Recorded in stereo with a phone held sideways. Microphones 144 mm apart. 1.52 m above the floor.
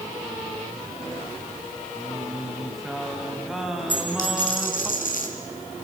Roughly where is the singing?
Centre.